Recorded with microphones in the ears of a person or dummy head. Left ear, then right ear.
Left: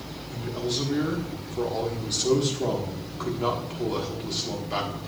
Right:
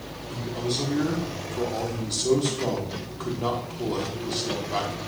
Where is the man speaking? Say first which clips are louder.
Even; 10° left (ahead or behind), 1.5 m.